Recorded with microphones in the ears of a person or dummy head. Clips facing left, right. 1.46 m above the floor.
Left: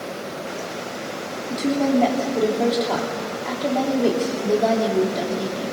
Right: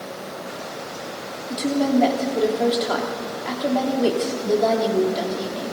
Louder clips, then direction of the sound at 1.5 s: Even; 10° right (ahead or behind).